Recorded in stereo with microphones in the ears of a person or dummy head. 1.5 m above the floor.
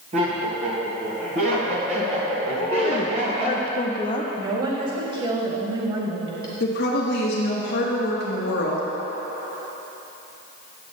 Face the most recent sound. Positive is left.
turn(degrees=55)  # may be behind; listen again after turning